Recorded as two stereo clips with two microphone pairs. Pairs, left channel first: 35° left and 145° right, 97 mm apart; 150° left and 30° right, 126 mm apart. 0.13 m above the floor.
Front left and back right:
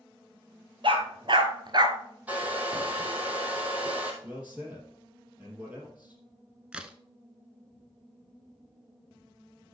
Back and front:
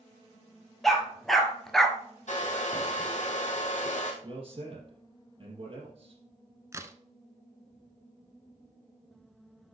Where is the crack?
75° right, 0.8 m.